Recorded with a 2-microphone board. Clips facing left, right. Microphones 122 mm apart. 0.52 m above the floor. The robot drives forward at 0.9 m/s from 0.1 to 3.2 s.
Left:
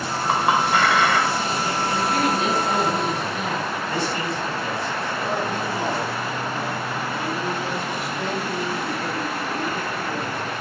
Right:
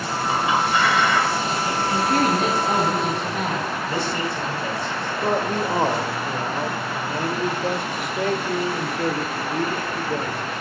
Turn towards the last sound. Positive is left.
turn(degrees=-55)  # may be behind; listen again after turning